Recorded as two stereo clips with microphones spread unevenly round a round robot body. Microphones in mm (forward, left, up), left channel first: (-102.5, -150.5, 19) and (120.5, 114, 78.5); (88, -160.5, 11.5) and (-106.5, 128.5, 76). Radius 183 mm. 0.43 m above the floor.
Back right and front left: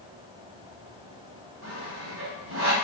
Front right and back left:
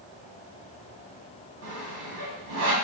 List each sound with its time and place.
1.6 s sawing: 90° left, 1.1 m